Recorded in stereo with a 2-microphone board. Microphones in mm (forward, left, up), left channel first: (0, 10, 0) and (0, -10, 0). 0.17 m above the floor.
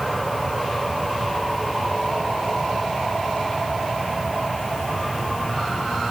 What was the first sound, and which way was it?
Only background noise.